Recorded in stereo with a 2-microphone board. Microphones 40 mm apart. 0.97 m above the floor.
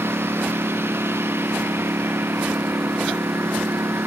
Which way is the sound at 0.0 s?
80° right.